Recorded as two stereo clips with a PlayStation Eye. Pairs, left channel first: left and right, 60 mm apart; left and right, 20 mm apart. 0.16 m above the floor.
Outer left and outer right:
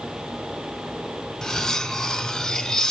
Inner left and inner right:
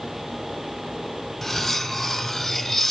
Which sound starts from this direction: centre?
Cutlery clinking, at 1.4 s.